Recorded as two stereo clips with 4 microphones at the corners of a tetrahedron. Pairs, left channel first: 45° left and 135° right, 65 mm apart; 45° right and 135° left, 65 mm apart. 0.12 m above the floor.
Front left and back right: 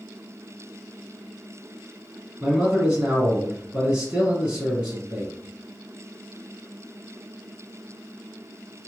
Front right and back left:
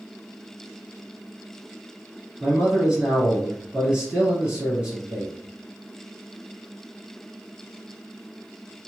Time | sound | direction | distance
2.4 | a man speaking | 175° left | 1.5 m